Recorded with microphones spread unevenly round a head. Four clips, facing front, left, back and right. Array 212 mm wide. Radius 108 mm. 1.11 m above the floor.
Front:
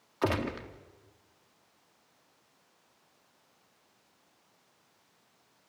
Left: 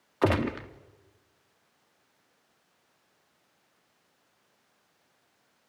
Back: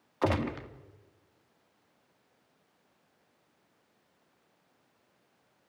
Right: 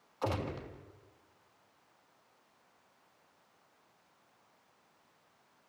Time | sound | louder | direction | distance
0.2 | a gunshot | left 10 dB, back 1 dB | 85° left | 1.6 m